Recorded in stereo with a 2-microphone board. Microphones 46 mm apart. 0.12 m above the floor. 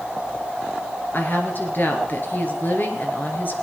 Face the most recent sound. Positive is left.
turn(degrees=45)  # may be behind; listen again after turning